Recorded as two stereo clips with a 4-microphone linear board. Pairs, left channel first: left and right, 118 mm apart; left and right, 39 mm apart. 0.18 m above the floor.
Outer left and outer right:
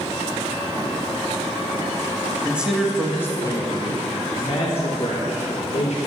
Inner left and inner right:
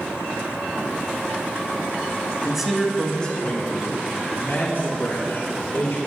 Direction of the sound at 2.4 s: 15° right (ahead or behind).